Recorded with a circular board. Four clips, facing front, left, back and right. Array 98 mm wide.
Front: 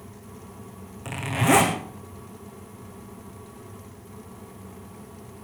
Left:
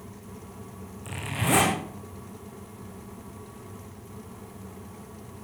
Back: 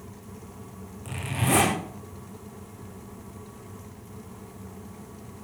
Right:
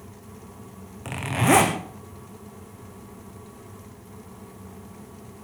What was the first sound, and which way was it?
A zipper, 60° right.